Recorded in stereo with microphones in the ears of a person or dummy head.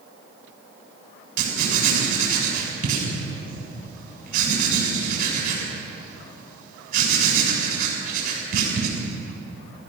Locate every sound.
1.4 s writing: 50° right (ahead or behind), 7 m